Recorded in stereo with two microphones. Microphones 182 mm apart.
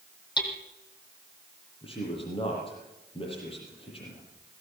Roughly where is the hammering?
Left.